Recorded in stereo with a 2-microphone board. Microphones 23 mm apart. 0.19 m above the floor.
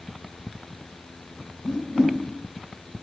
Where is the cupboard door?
No cupboard door in this recording.